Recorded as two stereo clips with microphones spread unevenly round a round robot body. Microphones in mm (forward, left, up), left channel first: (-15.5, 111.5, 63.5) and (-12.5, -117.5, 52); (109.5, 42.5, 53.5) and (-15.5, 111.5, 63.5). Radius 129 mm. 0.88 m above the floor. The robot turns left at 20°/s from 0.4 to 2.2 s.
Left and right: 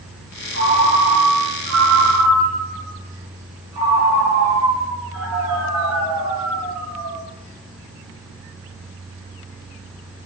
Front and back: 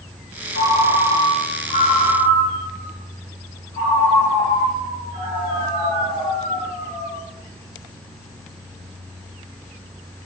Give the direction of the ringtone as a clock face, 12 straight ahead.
2 o'clock.